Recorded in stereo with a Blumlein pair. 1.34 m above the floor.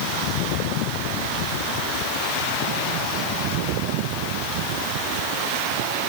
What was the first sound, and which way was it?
Only background noise.